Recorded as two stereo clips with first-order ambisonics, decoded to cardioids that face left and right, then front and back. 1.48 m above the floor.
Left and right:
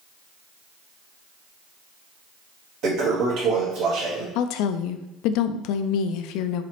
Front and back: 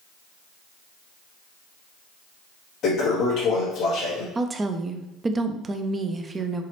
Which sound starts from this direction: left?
A woman speaking, at 4.3 s.